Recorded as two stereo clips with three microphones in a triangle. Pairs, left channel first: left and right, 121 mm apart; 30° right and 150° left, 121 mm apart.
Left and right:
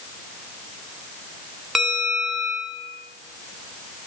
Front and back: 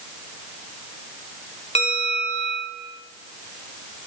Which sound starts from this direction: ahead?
A bell, at 1.8 s.